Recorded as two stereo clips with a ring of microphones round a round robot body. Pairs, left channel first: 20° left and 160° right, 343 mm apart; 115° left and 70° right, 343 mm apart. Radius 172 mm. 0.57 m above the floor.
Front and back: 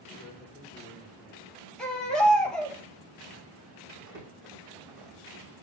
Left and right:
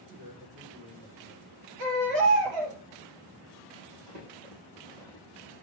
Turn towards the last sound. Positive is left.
turn(degrees=-100)